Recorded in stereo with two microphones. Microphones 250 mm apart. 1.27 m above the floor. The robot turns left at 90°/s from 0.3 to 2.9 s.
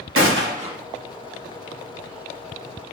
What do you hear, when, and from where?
0.1 s a gunshot: 125° right, 0.8 m; by 0.8 s 165° right, 0.8 m